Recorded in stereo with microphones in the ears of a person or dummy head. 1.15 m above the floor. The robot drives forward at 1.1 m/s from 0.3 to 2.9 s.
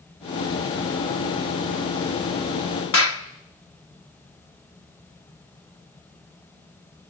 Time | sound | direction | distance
2.9 | a clap | 75° left (ahead or behind) | 1.5 m